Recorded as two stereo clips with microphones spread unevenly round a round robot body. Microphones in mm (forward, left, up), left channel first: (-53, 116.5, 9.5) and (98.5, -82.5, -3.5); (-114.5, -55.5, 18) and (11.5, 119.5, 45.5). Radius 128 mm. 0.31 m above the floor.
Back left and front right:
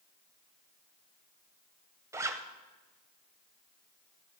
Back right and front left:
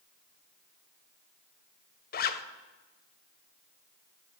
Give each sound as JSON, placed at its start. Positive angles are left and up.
{"t": 2.1, "sound": "a zipper", "azimuth_deg": -125, "distance_m": 0.7}